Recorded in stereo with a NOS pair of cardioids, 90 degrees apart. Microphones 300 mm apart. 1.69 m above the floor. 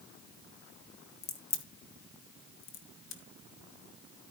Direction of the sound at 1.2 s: 60° left.